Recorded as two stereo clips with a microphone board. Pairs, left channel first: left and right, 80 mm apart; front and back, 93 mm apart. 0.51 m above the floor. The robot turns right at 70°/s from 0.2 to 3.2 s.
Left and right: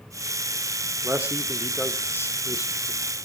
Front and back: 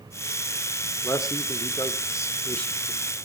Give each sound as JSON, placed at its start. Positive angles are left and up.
{"t": 1.0, "sound": "a man speaking", "azimuth_deg": -40, "distance_m": 1.6}